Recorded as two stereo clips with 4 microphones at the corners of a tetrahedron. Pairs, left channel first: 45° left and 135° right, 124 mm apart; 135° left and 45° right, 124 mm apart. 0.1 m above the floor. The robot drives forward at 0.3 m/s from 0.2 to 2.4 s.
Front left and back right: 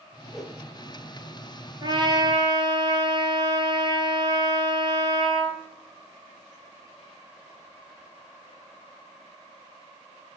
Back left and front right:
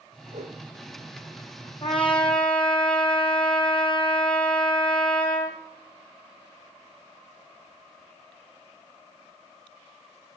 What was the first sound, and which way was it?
A whoosh, 45° right.